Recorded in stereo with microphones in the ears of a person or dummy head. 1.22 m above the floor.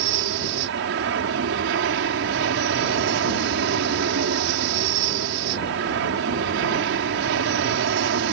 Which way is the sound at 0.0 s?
60° right (ahead or behind).